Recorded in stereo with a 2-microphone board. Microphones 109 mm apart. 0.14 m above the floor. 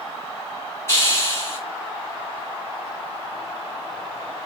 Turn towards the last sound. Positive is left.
turn(degrees=25)  # may be behind; listen again after turning